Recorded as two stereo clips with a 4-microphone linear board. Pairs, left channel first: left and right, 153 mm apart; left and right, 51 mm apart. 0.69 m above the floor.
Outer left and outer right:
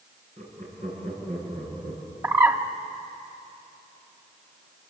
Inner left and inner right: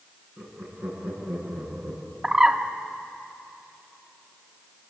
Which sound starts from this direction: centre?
A bird, at 2.2 s.